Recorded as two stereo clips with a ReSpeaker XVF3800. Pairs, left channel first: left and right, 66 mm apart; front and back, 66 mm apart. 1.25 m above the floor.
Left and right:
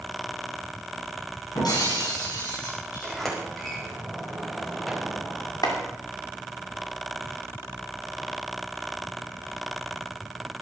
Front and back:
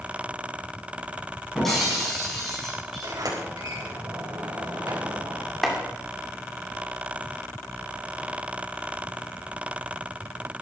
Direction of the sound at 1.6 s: 85° left.